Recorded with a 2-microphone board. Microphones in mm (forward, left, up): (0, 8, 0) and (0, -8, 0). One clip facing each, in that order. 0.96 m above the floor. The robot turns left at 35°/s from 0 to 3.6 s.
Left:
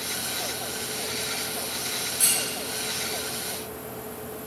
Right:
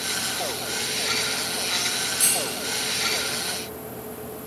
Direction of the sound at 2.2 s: 10° right (ahead or behind).